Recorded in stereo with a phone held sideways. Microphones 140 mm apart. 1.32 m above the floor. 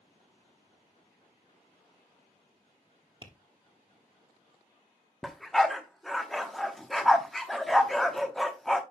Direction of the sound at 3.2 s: 35° right (ahead or behind).